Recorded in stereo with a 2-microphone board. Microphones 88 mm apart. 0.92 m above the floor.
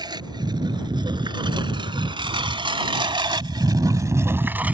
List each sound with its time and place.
0.0 s a lawn mower: 50° right (ahead or behind); by 4.7 s 15° right (ahead or behind)